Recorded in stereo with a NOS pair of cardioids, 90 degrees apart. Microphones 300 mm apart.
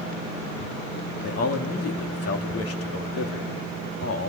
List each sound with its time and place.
1.2 s a man speaking: 55° left, 2.5 m